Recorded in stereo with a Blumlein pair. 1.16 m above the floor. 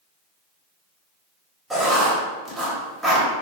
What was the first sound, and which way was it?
Writing, 10° right.